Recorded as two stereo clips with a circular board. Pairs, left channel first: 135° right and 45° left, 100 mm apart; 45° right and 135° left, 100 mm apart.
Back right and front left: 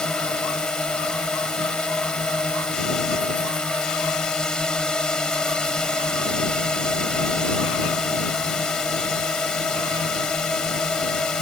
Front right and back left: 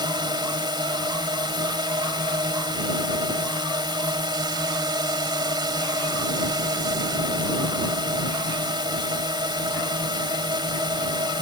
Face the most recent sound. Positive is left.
turn(degrees=145)